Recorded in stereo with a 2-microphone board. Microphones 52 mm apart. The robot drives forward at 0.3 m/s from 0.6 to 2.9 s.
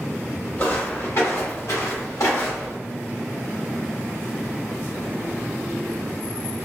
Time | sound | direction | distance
0.6 | footsteps | 35° left (ahead or behind) | 1.4 m